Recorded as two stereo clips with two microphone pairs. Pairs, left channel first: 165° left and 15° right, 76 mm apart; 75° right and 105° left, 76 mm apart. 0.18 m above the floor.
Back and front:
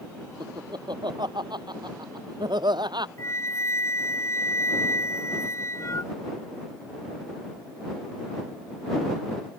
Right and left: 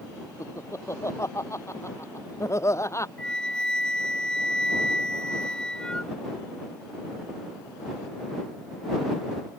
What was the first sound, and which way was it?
Laughter, 25° right.